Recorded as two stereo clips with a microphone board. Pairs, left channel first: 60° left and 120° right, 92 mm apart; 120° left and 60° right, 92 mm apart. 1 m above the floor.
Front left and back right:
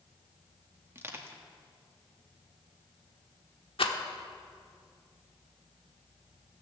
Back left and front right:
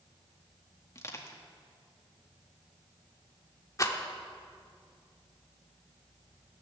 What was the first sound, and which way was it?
Crushing, 175° left.